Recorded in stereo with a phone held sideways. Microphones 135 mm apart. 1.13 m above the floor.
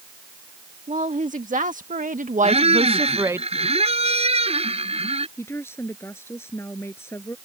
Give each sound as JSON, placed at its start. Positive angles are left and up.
{"t": 0.9, "sound": "a woman speaking", "side_deg": -70}
{"t": 2.4, "sound": "a squeak", "side_deg": -50}
{"t": 5.4, "sound": "a woman speaking", "side_deg": 20}